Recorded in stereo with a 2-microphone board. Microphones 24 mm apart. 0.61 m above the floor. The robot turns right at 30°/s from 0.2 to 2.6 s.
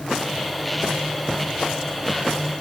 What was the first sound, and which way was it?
Only background noise.